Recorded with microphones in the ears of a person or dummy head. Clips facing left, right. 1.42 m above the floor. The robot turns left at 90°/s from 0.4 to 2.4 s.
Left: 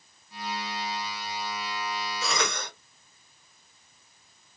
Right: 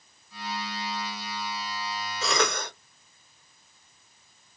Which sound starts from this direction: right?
A cough, at 2.2 s.